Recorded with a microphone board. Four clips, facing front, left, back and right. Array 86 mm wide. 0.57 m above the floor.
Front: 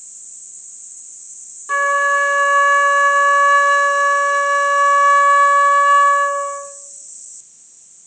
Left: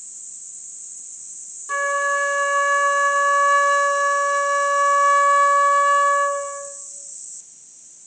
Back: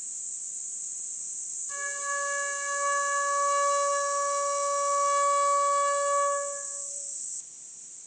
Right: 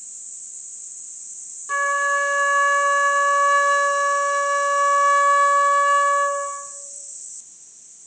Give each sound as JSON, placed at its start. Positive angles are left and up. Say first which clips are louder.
{"t": 1.7, "sound": "a flute", "louder": "even, front 19 dB", "azimuth_deg": 0, "distance_m": 1.8}